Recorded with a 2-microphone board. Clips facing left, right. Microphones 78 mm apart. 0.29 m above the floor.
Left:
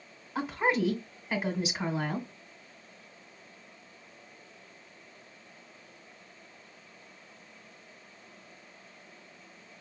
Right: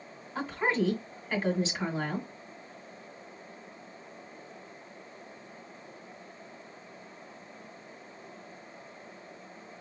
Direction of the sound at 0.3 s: 10° left (ahead or behind).